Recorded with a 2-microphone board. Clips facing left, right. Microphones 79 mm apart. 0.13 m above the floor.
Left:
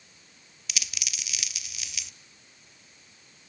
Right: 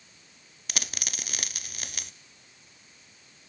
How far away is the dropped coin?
About 0.6 m.